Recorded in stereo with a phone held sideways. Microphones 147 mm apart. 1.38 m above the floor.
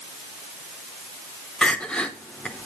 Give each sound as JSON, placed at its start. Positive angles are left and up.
{"t": 1.6, "sound": "crying", "side_deg": 5, "distance_m": 0.8}